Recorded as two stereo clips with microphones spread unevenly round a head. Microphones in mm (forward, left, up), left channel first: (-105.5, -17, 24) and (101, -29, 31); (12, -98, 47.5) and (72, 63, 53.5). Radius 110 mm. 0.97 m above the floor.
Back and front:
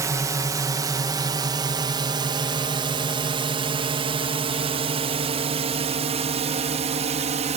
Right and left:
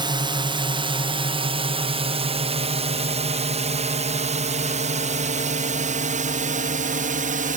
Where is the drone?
55° left; by 7.6 s 50° left.